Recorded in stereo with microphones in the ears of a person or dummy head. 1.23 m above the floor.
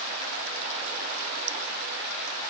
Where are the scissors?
I don't hear scissors.